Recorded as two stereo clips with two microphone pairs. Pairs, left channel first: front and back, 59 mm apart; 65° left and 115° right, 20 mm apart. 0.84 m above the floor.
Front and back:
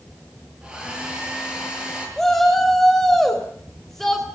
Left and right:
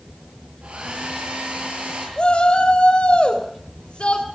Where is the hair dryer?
100° right, 8.5 m.